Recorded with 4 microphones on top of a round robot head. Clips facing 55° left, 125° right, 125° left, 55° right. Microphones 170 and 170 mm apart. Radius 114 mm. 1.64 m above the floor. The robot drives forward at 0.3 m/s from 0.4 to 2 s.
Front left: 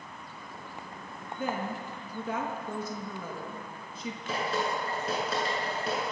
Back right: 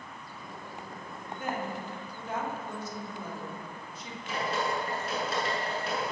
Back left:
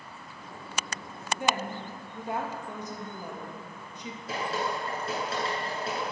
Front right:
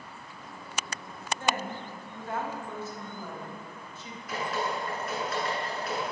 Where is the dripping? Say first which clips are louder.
Even, even; 60° left, 8.5 m.